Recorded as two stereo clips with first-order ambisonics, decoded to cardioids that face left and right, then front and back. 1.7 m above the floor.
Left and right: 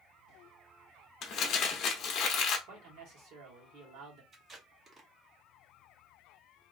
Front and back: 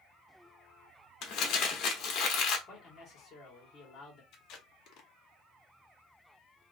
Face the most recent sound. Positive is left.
turn(degrees=-25)